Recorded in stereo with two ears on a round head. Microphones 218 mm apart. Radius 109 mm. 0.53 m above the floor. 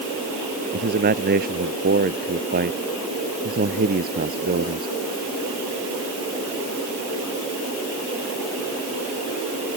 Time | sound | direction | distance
0.7 | a man speaking | 40° right (ahead or behind) | ?